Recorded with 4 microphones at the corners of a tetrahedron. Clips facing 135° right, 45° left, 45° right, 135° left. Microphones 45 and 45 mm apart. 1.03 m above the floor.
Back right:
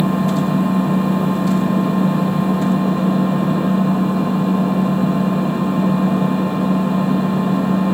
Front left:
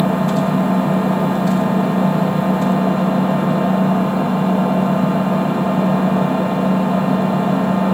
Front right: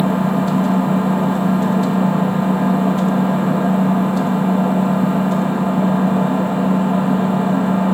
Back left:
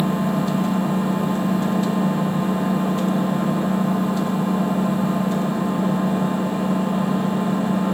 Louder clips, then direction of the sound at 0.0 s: Front left 1 dB, front right 4 dB; 10° left.